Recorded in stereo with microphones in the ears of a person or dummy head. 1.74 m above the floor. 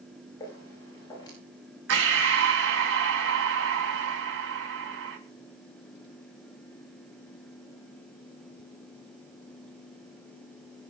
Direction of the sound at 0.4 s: 20° left (ahead or behind).